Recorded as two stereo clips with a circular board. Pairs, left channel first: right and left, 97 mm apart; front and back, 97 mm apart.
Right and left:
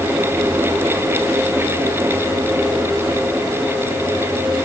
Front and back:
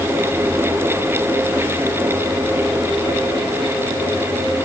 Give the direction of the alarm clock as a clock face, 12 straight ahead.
No alarm clock in this recording.